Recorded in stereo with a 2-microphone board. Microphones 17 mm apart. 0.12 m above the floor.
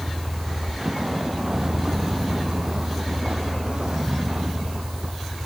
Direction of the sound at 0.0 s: 20° right (ahead or behind).